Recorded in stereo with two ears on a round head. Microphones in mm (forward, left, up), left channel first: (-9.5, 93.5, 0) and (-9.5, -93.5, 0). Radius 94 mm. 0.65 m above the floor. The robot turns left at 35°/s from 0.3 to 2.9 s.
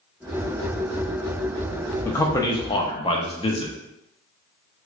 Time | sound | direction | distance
2.0 | a man speaking | 10° left (ahead or behind) | 0.6 m